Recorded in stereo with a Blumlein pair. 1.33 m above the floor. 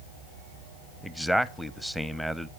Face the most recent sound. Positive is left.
turn(degrees=0)